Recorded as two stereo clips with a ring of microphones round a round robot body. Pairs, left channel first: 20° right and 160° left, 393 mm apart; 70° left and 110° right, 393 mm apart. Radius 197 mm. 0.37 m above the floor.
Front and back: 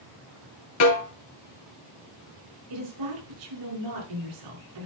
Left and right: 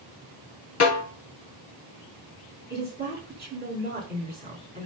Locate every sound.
0.8 s a snare drum: 20° left, 3 m
2.7 s a woman speaking: straight behind, 4.5 m